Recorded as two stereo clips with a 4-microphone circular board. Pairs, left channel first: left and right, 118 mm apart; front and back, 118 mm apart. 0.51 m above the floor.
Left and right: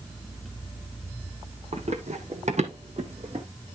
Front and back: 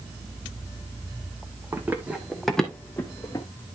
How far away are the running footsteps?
About 1.7 m.